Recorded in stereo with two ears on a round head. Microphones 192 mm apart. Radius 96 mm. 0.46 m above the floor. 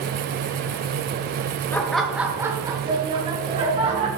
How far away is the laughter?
About 0.8 m.